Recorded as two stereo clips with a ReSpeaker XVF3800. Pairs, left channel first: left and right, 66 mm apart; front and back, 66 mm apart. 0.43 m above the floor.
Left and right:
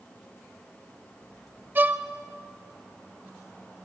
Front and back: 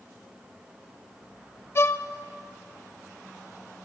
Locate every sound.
1.8 s a violin: 35° right, 1.3 m